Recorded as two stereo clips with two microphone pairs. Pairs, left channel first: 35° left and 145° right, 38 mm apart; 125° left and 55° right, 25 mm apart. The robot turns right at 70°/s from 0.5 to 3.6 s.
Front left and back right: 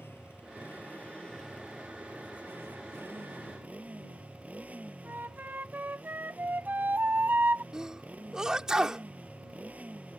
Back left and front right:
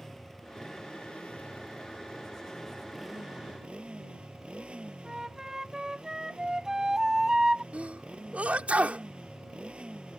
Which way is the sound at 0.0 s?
50° left.